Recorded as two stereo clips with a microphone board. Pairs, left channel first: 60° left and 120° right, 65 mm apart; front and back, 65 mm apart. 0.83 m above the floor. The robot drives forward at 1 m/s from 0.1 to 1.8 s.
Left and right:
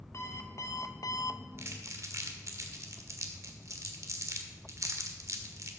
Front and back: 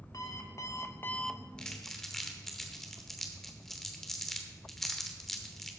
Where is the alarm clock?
20° left, 1.3 m; by 1.5 s 105° left, 0.5 m.